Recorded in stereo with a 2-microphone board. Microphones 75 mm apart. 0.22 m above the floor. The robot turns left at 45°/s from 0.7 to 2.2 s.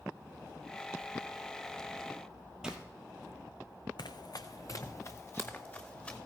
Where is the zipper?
10° right (ahead or behind), 1.9 m.